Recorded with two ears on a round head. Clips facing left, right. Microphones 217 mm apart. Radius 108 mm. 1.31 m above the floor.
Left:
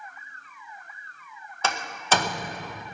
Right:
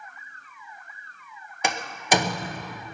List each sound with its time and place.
1.6 s a door slam: 15° right (ahead or behind), 0.7 m